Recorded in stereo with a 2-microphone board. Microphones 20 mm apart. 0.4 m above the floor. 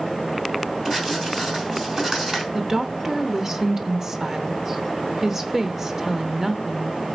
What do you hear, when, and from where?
0.8 s writing: 25° right (ahead or behind), 4.5 m
2.5 s a woman speaking: 20° right (ahead or behind), 0.8 m